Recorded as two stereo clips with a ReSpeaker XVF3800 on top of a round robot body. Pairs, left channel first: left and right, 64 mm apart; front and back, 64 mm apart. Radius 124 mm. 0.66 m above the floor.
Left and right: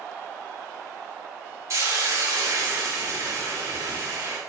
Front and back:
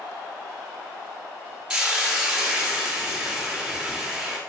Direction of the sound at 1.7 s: 105° right.